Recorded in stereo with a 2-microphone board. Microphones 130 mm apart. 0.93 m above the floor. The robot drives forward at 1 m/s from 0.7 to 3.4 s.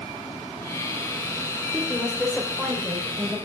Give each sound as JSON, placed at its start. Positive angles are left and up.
{"t": 1.7, "sound": "a woman speaking", "side_deg": 5, "distance_m": 3.0}